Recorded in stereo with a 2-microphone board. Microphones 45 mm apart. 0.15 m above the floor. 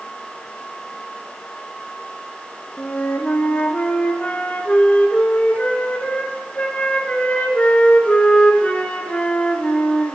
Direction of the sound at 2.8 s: 30° left (ahead or behind).